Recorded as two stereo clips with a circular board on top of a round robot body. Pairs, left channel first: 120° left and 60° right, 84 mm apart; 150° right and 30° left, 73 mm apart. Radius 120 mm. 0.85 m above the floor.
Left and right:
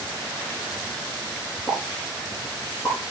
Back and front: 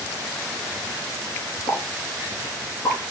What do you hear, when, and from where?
1.7 s a pop: straight behind, 6.5 m